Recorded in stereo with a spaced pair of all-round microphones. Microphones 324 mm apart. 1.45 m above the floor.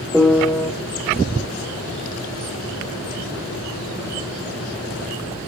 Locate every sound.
0.1 s a piano: centre (ahead or behind), 1.1 m